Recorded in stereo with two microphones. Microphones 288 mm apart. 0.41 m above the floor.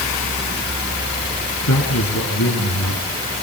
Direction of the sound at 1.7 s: 75° left (ahead or behind).